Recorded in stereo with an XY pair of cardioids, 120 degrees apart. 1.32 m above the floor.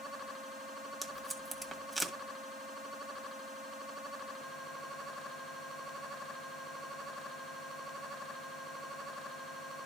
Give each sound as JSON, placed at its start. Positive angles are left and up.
{"t": 1.0, "sound": "tape being pulled", "azimuth_deg": -15, "distance_m": 1.4}